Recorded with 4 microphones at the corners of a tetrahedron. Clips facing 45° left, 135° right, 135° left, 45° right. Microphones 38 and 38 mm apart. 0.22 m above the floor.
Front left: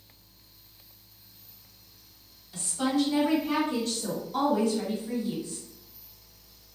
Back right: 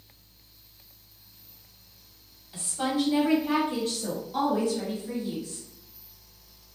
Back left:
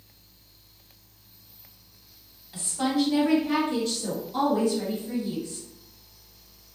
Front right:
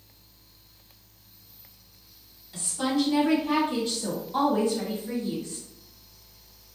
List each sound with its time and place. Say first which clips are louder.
2.5 s a woman speaking: front left 1 dB, back left 1 dB; straight behind, 1.3 m; by 5.6 s 60° right, 1.7 m